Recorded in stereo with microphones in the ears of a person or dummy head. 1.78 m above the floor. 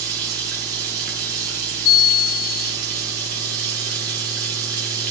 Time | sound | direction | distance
0.0 | running water | 55° right (ahead or behind) | 1.2 m
1.9 | a bell | 50° left (ahead or behind) | 0.9 m